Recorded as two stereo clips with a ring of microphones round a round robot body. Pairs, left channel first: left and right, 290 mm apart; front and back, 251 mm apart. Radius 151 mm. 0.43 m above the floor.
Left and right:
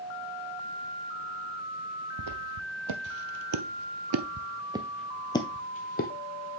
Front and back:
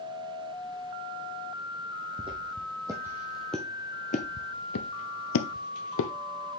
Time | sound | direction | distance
2.2 | footsteps | 105° right | 1.3 m